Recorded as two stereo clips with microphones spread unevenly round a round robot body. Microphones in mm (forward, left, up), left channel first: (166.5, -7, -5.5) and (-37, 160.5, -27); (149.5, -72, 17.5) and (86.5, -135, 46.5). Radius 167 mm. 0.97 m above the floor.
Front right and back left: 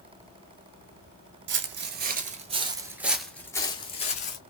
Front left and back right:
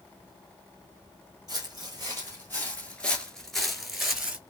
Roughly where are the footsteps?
Behind left.